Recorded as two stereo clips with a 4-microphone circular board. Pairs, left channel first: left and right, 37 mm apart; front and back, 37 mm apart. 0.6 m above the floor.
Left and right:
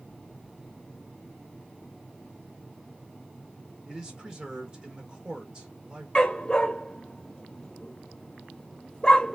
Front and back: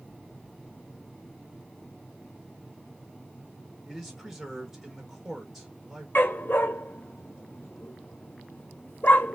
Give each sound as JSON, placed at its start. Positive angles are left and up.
{"t": 3.9, "sound": "a man speaking", "azimuth_deg": -100, "distance_m": 1.0}
{"t": 6.2, "sound": "a dog barking", "azimuth_deg": 25, "distance_m": 0.5}